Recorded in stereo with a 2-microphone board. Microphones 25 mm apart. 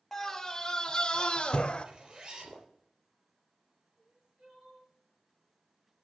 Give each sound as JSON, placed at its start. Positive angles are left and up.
{"t": 0.1, "sound": "a scream", "side_deg": 15, "distance_m": 1.7}
{"t": 1.9, "sound": "a zipper", "side_deg": -40, "distance_m": 4.0}
{"t": 4.0, "sound": "crying", "side_deg": -65, "distance_m": 7.0}